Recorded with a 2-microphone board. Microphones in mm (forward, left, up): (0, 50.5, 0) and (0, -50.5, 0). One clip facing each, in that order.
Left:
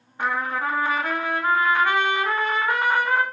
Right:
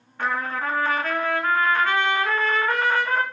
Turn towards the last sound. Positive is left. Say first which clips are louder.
# left 1 dB
turn(degrees=15)  # may be behind; listen again after turning